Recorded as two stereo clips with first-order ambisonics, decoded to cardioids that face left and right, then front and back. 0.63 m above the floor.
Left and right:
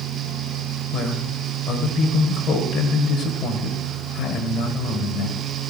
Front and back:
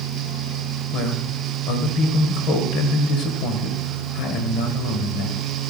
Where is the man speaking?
35° left, 2.5 m.